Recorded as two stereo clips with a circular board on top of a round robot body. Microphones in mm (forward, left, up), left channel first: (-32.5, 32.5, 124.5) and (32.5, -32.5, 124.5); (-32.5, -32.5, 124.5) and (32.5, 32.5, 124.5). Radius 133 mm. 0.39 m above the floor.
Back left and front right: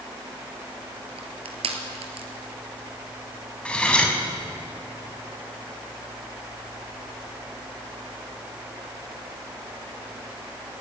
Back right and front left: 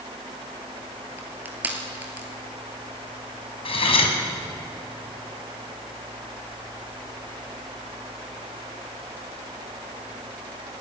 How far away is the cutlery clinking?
About 3 m.